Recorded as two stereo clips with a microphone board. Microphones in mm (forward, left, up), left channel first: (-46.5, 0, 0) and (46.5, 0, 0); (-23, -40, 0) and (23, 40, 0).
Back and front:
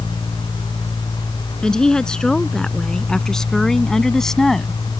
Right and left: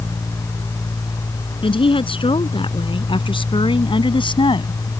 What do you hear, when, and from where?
1.6 s a woman speaking: 100° right; by 4.9 s 95° right